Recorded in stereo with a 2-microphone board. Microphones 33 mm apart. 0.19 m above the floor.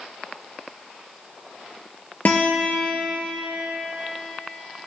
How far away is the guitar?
About 3 m.